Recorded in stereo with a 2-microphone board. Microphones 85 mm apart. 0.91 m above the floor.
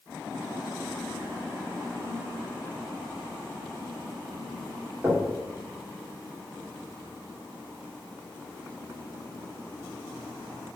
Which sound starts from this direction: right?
Knocking, at 5.0 s.